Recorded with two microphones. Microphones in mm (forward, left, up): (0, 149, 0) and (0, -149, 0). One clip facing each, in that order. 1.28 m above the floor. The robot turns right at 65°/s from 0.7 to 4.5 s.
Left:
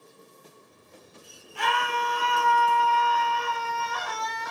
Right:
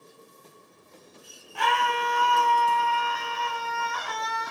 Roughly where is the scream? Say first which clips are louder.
Right 2 dB; right.